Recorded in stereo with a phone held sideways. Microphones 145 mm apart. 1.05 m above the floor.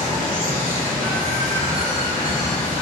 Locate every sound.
0.0 s running water: 50° left (ahead or behind), 1.8 m